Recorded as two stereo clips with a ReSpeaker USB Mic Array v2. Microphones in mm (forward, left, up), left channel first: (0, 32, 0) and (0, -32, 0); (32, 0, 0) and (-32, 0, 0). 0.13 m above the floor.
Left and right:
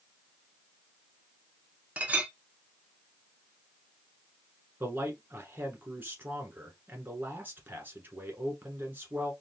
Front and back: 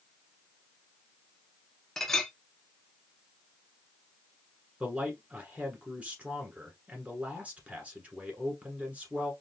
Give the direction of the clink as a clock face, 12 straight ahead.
2 o'clock.